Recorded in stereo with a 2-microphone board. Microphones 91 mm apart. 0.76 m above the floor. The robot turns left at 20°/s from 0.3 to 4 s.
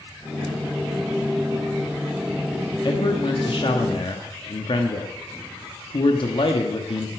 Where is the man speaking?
55° left (ahead or behind), 1.1 m; by 7.1 s 60° left (ahead or behind), 1.1 m.